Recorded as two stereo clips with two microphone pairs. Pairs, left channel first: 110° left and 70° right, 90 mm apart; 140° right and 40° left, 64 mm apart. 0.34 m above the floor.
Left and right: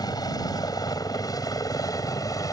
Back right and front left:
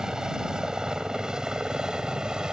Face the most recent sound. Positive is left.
turn(degrees=115)